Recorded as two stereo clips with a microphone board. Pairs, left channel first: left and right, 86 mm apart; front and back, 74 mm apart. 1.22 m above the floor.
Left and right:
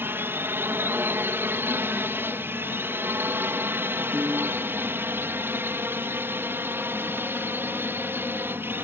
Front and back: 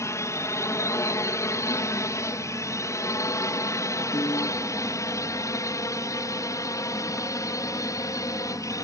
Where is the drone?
35° right; by 8.8 s 30° right.